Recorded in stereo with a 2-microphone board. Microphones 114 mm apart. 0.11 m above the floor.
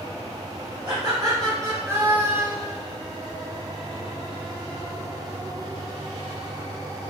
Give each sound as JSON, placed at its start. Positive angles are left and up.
{"t": 0.8, "sound": "laughter", "side_deg": -35, "distance_m": 1.7}